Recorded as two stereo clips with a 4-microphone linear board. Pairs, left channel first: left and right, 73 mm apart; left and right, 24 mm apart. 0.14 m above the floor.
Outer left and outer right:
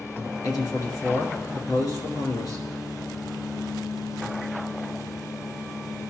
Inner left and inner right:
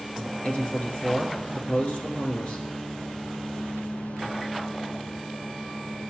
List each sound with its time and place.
0.4 s a man speaking: 55° left (ahead or behind), 2.5 m